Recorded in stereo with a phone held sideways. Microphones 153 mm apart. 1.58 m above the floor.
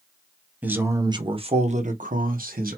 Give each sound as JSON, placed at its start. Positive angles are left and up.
{"t": 0.6, "sound": "a man speaking", "side_deg": -10, "distance_m": 0.8}